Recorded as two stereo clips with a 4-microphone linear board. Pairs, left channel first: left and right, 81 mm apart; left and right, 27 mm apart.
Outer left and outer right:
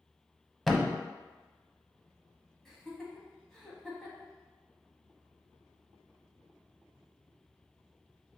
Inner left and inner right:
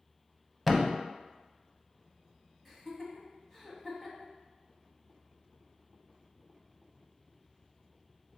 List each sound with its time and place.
0.7 s a thud: centre (ahead or behind), 0.5 m
2.6 s laughter: 5° left (ahead or behind), 1.2 m